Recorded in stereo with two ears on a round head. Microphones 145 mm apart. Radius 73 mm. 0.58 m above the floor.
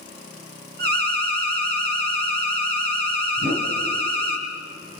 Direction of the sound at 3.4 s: 60° right (ahead or behind).